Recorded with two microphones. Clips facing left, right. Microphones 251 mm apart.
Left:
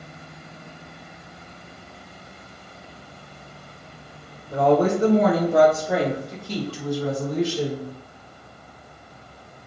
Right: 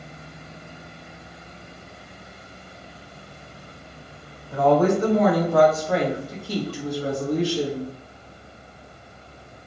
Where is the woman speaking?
40° left (ahead or behind), 1.3 m; by 7.9 s 45° right (ahead or behind), 1.3 m.